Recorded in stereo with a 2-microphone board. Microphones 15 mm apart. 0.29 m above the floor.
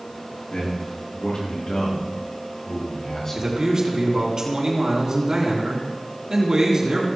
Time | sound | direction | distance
0.5 | a man speaking | 60° left (ahead or behind) | 5.5 m
3.4 | a man speaking | 45° right (ahead or behind) | 3 m